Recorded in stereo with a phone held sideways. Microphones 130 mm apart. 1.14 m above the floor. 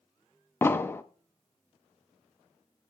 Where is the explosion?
15° left (ahead or behind), 0.5 m.